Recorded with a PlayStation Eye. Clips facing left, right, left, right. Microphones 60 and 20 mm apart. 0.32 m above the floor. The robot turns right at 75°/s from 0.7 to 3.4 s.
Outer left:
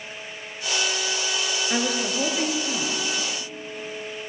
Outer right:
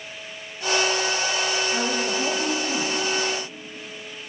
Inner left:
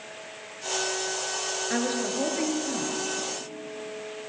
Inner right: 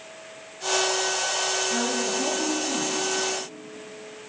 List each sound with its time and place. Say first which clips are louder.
1.7 s a woman speaking: outer right 1 dB, inner right 2 dB; 80° left, 6 m; by 2.9 s 175° left, 6 m